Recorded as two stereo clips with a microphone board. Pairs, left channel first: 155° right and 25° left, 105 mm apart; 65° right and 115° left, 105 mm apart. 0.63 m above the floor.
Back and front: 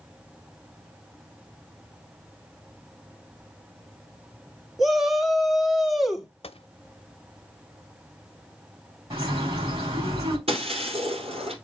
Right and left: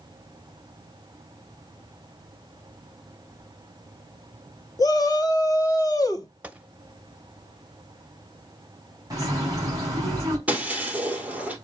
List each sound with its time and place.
4.8 s a shout: 65° right, 1.3 m
6.4 s a gunshot: 170° right, 0.5 m
9.1 s a bird: 50° left, 4.5 m
10.5 s breaking glass: 35° left, 1.9 m